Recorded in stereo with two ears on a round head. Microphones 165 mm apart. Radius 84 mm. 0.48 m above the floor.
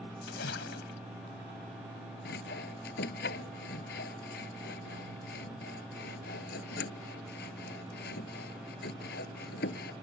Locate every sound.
0.2 s a splash: 70° left (ahead or behind)
2.2 s sawing: 55° left (ahead or behind)